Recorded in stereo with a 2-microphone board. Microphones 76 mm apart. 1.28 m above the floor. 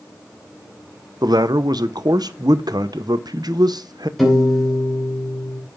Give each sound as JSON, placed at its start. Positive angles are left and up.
{"t": 1.2, "sound": "a man speaking", "side_deg": -70, "distance_m": 0.8}
{"t": 4.2, "sound": "a piano", "side_deg": 0, "distance_m": 3.0}